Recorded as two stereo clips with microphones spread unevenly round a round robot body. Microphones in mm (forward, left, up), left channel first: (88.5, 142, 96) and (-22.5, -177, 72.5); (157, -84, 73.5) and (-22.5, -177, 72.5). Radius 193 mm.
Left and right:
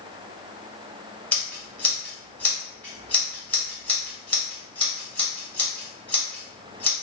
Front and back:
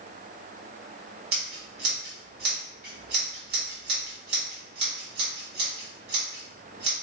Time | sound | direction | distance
1.3 | scissors | 160° left | 1.5 m